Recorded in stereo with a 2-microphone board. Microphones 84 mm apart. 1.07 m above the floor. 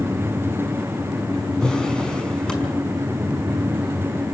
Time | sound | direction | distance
1.6 | a drawer | 10° left (ahead or behind) | 5.5 m